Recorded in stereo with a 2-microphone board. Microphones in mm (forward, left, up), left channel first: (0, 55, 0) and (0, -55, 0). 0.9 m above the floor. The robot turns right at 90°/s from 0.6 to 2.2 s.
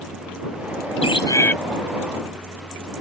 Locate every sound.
1.0 s a bird: 120° left; by 1.6 s 165° left